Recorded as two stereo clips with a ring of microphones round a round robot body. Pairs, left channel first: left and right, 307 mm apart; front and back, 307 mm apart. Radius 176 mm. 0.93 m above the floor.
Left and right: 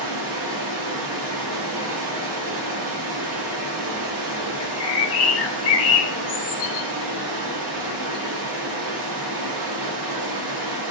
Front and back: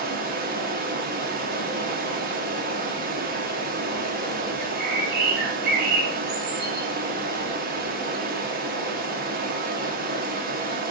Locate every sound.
0.0 s running water: 115° right, 0.9 m
4.6 s a bird: 125° left, 0.8 m